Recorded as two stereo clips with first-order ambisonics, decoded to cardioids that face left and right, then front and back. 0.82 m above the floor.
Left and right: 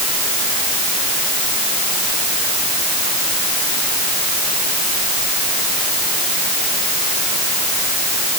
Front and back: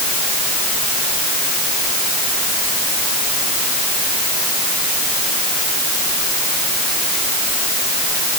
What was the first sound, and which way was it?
Only background noise.